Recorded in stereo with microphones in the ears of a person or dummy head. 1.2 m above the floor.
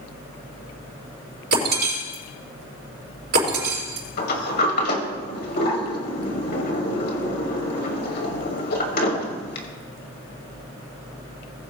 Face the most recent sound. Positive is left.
turn(degrees=55)  # may be behind; listen again after turning